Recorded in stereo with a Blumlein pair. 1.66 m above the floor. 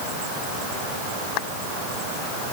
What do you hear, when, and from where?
Only background noise.